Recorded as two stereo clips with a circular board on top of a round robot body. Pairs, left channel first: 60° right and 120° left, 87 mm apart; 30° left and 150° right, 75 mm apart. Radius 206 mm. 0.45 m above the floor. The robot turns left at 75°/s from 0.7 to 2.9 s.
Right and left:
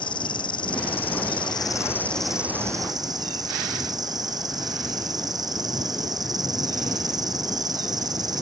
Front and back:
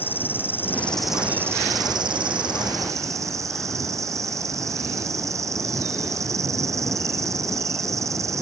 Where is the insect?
35° right; by 8.4 s 160° left.